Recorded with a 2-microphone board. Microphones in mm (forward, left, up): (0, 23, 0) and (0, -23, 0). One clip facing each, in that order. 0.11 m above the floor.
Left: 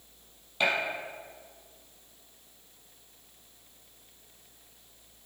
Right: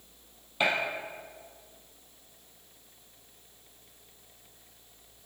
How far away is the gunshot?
About 3.5 m.